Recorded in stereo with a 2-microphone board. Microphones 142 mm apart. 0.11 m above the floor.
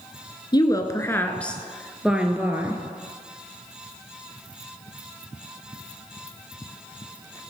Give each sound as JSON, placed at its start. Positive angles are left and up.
{"t": 0.5, "sound": "a woman speaking", "side_deg": 30, "distance_m": 1.1}